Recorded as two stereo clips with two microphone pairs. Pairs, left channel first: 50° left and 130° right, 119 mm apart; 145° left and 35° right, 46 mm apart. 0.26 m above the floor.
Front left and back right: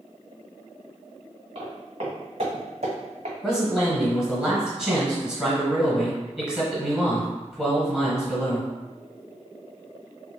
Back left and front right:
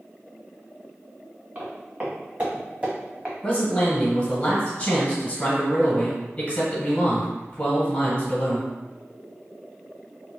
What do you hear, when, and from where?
1.6 s footsteps: 90° right, 1.6 m; by 3.4 s 110° right, 0.8 m
3.4 s a man speaking: 155° left, 1.2 m